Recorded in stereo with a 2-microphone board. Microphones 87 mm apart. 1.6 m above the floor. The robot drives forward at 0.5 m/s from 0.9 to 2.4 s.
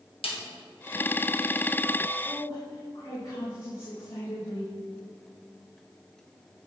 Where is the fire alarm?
No fire alarm in this recording.